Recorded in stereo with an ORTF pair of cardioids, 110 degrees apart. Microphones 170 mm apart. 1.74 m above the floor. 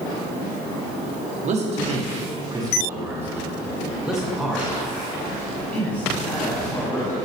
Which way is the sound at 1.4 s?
45° right.